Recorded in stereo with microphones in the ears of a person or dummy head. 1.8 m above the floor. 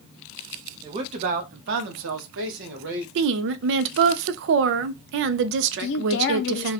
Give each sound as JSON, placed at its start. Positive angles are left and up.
{"t": 0.8, "sound": "a man speaking", "side_deg": -25, "distance_m": 0.8}
{"t": 3.1, "sound": "a woman speaking", "side_deg": -65, "distance_m": 0.5}
{"t": 5.8, "sound": "a woman speaking", "side_deg": 55, "distance_m": 0.5}